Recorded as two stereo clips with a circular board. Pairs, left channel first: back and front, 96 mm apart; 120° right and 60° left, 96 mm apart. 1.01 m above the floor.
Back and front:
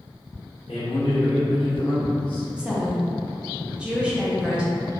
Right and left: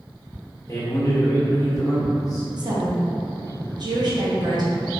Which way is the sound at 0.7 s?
170° right.